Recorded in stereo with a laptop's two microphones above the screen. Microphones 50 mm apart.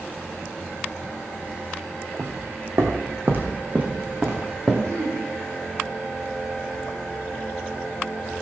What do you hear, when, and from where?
2.2 s footsteps: 65° right (ahead or behind), 2 m; by 4.7 s 20° right (ahead or behind), 3 m
4.8 s throat clearing: 75° right (ahead or behind), 3 m